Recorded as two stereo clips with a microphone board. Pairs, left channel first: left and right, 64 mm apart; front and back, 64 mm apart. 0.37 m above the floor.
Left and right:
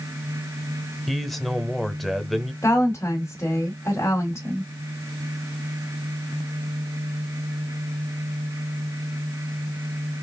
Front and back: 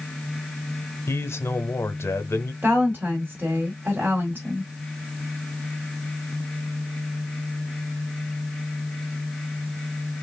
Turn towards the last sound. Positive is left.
turn(degrees=130)